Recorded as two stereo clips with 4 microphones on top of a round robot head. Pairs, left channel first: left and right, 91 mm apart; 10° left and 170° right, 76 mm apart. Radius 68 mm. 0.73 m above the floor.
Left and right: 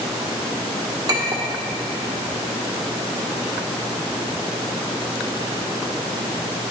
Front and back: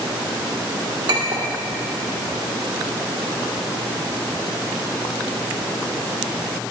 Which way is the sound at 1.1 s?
140° right.